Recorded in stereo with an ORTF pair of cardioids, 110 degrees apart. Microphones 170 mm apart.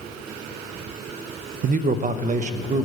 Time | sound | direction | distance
1.6 | a man speaking | 55° right | 0.6 m